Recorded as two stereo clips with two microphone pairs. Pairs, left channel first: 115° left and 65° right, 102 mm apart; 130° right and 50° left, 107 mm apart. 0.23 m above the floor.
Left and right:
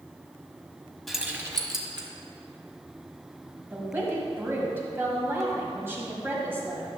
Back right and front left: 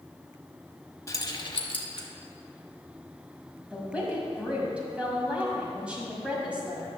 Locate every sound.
1.1 s keys jangling: 155° right, 0.7 m; by 2.1 s 90° right, 1.4 m
3.7 s a woman speaking: 15° right, 1.7 m